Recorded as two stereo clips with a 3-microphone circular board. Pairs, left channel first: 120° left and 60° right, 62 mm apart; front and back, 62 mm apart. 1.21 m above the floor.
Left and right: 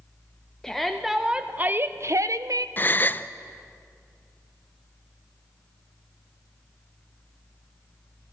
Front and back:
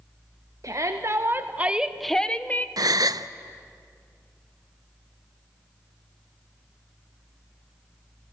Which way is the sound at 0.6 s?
155° right.